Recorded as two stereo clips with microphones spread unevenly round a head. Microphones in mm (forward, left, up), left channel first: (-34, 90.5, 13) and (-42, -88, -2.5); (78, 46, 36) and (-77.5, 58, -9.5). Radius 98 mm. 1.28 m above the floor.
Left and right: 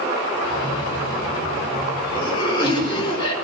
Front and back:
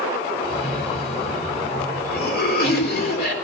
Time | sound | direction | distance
0.4 | a cough | 20° left | 4.5 m